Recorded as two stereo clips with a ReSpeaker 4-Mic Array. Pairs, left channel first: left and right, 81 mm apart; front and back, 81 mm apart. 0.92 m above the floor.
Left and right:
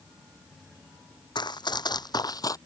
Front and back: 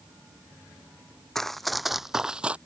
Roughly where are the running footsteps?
Left.